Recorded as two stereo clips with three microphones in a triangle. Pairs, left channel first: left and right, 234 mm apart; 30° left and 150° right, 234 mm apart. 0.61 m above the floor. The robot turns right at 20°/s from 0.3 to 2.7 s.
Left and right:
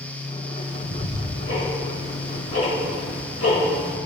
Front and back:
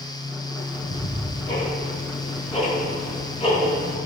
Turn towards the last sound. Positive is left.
turn(degrees=95)